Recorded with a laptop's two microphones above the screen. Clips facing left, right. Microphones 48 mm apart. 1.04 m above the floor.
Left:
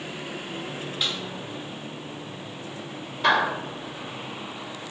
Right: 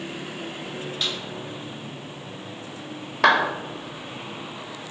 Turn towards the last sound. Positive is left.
turn(degrees=-75)  # may be behind; listen again after turning